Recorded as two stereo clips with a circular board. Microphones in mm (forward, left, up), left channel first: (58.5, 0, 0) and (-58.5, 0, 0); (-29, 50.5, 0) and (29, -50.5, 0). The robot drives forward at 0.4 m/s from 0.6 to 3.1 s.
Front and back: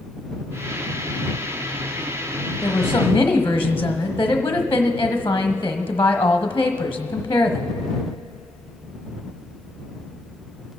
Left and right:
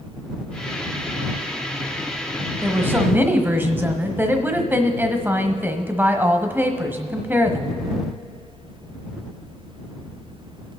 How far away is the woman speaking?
About 1.2 m.